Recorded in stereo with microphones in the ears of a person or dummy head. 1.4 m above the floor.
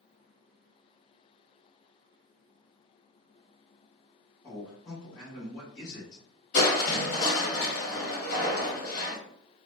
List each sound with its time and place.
4.4 s a man speaking: 25° left (ahead or behind), 1.6 m
6.5 s crushing: 45° left (ahead or behind), 1.6 m